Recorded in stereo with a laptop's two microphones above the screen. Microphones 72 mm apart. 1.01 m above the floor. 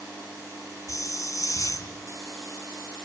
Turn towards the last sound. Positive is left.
turn(degrees=50)  # may be behind; listen again after turning